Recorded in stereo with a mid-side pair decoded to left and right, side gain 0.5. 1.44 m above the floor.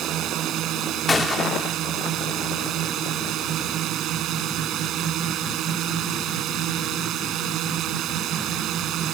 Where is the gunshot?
30° left.